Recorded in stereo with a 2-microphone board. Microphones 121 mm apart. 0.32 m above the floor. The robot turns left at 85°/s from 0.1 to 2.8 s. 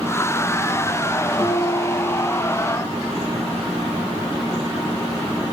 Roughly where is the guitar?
Ahead.